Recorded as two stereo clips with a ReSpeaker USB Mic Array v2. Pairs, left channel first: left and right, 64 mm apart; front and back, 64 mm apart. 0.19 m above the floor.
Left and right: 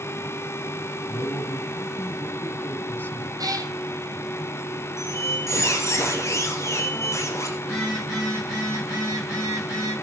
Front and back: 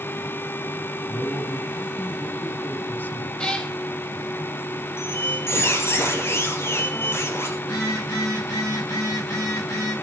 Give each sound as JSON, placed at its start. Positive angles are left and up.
{"t": 1.1, "sound": "a man speaking", "azimuth_deg": 45, "distance_m": 1.2}
{"t": 3.4, "sound": "a cat meowing", "azimuth_deg": -75, "distance_m": 1.7}
{"t": 5.0, "sound": "a squeak", "azimuth_deg": 45, "distance_m": 2.5}
{"t": 7.6, "sound": "a phone buzzing", "azimuth_deg": -25, "distance_m": 10.0}